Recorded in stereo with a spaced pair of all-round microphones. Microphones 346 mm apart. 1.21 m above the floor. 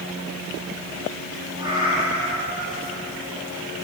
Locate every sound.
1.6 s a cat meowing: 10° right (ahead or behind), 9 m; by 3.0 s 20° right (ahead or behind), 9 m